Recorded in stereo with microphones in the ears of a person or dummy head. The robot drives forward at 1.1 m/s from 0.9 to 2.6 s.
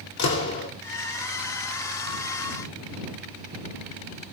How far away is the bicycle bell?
I don't hear a bicycle bell.